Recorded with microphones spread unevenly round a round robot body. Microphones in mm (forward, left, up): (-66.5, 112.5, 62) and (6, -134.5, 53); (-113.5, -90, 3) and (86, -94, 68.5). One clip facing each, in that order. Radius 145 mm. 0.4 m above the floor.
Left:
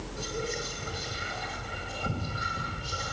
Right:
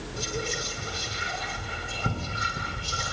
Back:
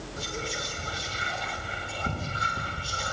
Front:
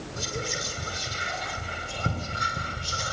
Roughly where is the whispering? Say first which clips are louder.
Right 1 dB, front 2 dB; ahead right.